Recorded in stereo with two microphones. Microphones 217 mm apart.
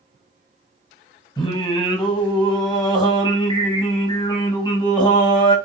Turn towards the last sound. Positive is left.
turn(degrees=20)  # may be behind; listen again after turning